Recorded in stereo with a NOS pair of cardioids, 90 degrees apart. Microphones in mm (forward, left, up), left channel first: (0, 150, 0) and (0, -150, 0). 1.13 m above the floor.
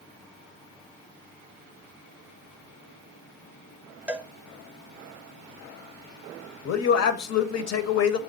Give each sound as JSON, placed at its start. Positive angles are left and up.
{"t": 4.1, "sound": "a cowbell", "azimuth_deg": -5, "distance_m": 0.5}
{"t": 6.7, "sound": "a man speaking", "azimuth_deg": 60, "distance_m": 0.9}